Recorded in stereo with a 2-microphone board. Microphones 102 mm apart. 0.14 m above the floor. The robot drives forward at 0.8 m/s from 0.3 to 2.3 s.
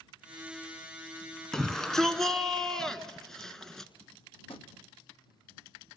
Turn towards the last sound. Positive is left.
turn(degrees=65)  # may be behind; listen again after turning